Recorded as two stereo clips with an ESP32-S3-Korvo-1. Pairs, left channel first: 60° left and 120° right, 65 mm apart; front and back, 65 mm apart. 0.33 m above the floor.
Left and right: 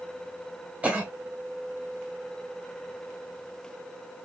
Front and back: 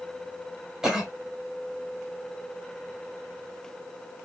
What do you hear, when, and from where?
0.8 s a cough: 110° right, 1.0 m